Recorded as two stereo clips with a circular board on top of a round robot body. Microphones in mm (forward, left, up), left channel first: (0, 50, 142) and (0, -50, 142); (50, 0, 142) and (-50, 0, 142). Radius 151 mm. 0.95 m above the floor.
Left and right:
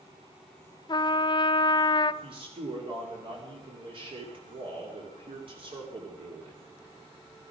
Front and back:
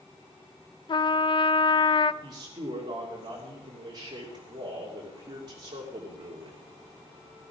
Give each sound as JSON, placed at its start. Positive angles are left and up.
{"t": 0.9, "sound": "a trumpet", "azimuth_deg": 45, "distance_m": 0.6}
{"t": 2.2, "sound": "a man speaking", "azimuth_deg": -125, "distance_m": 2.5}